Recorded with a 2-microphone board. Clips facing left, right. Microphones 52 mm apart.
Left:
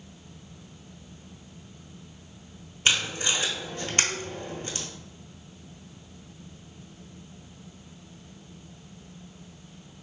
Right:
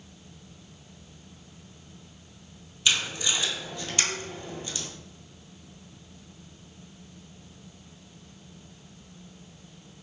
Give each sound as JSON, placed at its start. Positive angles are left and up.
{"t": 2.9, "sound": "tape being pulled", "side_deg": 40, "distance_m": 0.6}